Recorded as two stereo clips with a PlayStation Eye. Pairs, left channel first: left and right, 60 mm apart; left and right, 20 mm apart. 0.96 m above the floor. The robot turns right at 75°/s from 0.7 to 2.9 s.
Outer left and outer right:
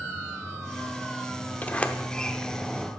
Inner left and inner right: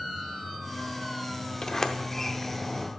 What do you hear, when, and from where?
1.6 s a sliding door: 25° left (ahead or behind), 0.6 m; by 2.9 s 10° right (ahead or behind), 0.6 m